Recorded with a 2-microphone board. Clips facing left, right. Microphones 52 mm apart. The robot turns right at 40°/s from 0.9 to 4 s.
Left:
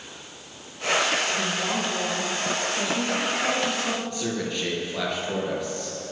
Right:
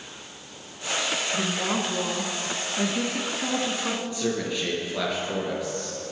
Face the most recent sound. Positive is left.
turn(degrees=-5)  # may be behind; listen again after turning